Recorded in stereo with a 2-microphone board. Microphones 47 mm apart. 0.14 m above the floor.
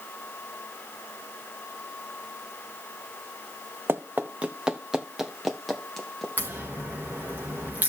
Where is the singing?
No singing in this recording.